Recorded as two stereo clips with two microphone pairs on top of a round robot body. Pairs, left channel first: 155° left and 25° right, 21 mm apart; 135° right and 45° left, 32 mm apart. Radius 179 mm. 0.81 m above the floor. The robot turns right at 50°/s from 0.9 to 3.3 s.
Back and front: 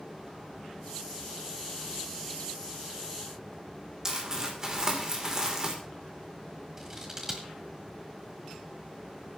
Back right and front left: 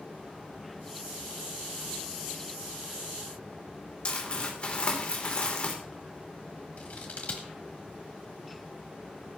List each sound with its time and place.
4.0 s crumpling: 85° right, 3 m
6.8 s scissors: 90° right, 1.3 m